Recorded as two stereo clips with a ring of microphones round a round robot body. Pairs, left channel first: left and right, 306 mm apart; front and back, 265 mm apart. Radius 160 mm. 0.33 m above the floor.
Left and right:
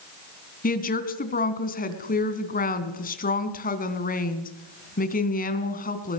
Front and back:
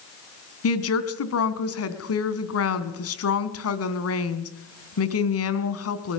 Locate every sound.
0.6 s a woman speaking: 25° left, 3 m